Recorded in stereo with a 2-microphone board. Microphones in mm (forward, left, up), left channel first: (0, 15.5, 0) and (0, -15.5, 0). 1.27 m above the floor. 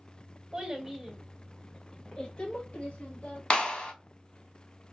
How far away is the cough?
I don't hear a cough.